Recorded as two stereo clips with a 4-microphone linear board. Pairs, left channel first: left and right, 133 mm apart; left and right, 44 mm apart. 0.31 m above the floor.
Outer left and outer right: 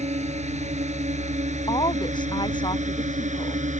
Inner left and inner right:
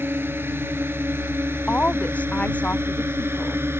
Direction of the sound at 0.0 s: 60° right (ahead or behind).